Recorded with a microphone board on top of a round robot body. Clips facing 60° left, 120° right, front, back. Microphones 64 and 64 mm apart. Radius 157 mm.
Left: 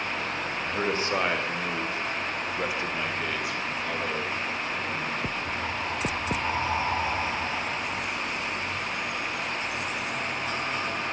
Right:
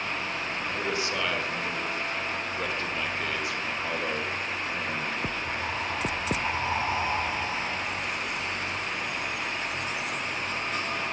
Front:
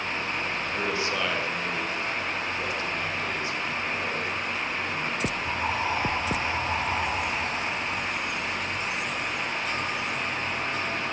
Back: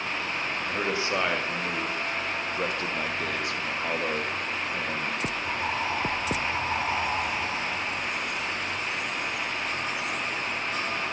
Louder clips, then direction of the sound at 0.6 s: Left 4 dB, back 2 dB; 110° left.